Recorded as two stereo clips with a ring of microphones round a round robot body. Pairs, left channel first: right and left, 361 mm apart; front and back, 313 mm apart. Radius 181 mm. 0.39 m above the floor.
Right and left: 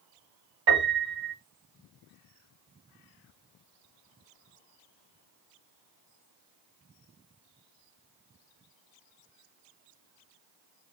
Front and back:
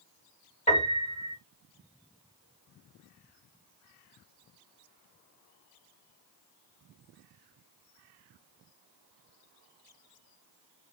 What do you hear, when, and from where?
0.7 s a piano: 65° left, 2 m